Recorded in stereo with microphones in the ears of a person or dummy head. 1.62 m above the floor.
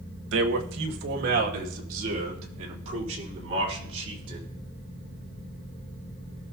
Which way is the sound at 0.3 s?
70° right (ahead or behind).